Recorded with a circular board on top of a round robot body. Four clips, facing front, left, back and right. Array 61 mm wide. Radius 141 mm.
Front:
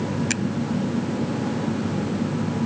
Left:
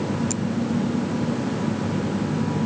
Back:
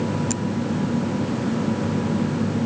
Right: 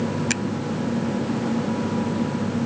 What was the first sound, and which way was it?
A finger snap, 50° right.